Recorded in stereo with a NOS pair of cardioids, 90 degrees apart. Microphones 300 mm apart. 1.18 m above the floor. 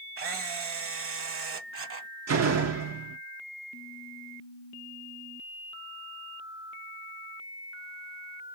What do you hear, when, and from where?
0.2 s a camera shutter: 50° right, 1.1 m
2.3 s a door slam: 60° right, 1.8 m